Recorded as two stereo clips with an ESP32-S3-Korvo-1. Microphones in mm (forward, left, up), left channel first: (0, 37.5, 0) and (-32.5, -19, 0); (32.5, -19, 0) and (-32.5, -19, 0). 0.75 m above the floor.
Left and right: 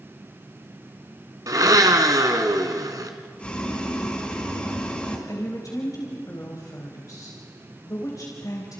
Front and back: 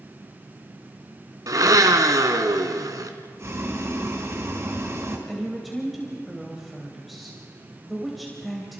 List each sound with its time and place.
1.5 s a blender: 150° right, 2.0 m
3.4 s boiling: 130° left, 5 m
5.3 s a woman speaking: 90° left, 3.5 m